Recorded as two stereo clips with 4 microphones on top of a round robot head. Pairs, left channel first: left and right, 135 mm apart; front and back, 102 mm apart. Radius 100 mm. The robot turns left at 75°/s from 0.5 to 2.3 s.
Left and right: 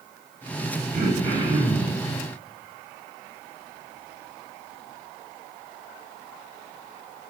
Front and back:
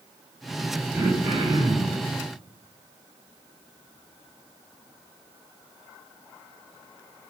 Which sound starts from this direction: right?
Throat clearing, at 0.9 s.